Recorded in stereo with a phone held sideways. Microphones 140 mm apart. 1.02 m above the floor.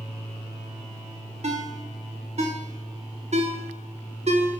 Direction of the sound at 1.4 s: 60° right (ahead or behind).